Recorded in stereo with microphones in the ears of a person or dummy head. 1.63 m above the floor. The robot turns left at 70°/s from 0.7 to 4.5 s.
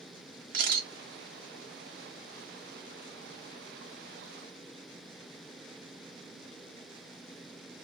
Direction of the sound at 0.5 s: 50° right (ahead or behind).